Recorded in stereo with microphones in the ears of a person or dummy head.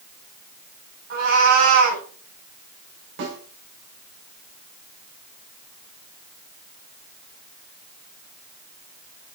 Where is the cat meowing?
60° right (ahead or behind), 3.5 m.